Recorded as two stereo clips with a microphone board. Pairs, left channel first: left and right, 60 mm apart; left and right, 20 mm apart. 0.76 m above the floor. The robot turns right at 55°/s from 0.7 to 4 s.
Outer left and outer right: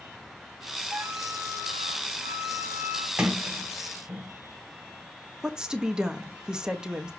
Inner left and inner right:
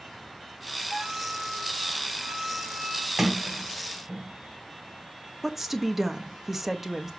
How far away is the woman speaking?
About 1.0 m.